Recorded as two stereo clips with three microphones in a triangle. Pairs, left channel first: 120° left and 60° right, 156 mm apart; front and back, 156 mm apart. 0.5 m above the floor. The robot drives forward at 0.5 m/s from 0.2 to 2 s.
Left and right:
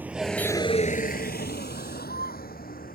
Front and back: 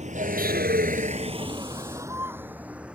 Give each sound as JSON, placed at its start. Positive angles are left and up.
{"t": 0.0, "sound": "a vehicle", "azimuth_deg": -140}